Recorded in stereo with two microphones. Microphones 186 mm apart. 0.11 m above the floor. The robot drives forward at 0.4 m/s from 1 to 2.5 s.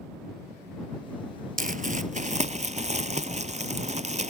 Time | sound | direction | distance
1.6 | crumpling | 50° right (ahead or behind) | ?